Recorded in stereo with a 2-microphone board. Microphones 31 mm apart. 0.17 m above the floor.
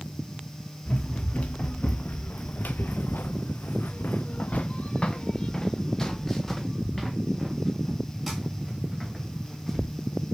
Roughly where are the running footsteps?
Left.